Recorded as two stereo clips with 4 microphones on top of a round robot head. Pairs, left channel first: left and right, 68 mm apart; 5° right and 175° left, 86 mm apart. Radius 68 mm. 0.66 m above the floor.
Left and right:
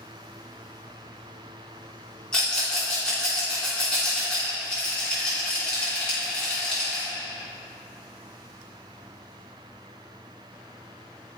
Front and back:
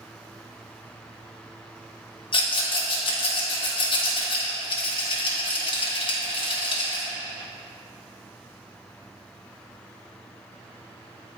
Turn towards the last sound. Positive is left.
turn(degrees=10)